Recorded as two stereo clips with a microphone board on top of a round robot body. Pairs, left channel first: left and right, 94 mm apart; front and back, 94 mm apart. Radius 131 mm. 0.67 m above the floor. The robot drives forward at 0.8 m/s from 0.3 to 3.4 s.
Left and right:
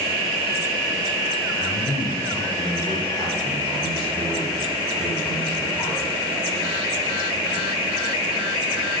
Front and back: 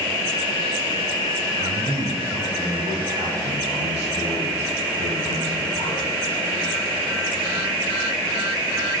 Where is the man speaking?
170° left, 3 m.